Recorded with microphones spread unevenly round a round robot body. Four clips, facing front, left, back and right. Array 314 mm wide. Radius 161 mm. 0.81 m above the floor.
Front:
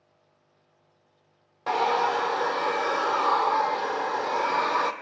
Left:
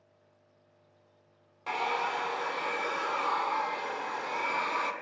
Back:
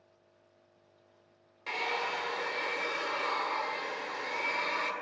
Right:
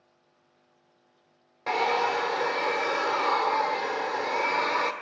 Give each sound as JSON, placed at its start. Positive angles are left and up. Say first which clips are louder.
{"t": 1.7, "sound": "a hair dryer", "louder": "right 6 dB, front 11 dB", "azimuth_deg": -40, "distance_m": 2.5}